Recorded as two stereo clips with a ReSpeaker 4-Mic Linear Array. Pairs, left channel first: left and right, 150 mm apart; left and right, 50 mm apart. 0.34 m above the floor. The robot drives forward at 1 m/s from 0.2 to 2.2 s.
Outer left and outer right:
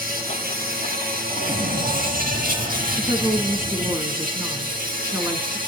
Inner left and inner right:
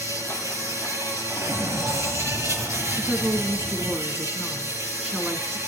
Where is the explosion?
55° right (ahead or behind), 1.2 m; by 4.0 s 60° right (ahead or behind), 1.2 m.